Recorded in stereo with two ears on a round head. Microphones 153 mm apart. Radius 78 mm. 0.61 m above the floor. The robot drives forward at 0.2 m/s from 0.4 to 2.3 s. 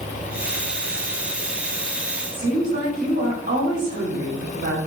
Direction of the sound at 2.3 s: 55° right (ahead or behind).